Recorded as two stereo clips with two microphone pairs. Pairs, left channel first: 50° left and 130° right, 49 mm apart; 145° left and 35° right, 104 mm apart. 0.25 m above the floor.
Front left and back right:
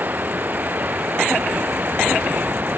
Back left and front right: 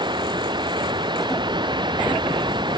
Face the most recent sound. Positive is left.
turn(degrees=-80)